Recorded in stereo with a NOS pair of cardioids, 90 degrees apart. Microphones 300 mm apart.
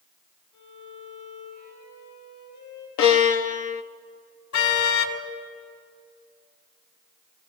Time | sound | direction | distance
0.5 | a violin | 70° left | 7.5 m
3.0 | a violin | 70° left | 1.0 m
4.5 | a car horn | 65° left | 3 m